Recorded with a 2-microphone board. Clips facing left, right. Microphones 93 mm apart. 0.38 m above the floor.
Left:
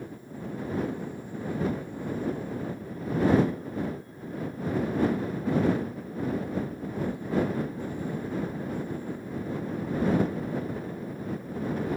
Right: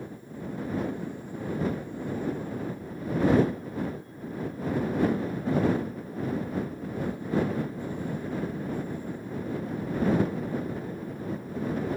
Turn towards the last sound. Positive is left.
No sound to turn to.